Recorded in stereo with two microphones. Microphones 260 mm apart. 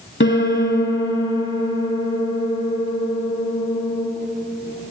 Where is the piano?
45° left (ahead or behind), 0.6 m.